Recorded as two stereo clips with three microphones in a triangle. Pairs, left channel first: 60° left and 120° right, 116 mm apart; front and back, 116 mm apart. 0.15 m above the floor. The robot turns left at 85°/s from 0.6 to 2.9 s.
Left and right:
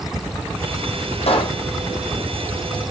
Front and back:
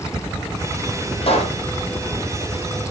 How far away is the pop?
About 3 m.